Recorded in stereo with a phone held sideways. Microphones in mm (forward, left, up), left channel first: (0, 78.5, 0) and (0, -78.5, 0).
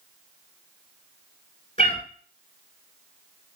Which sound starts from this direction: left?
A cat meowing, at 1.8 s.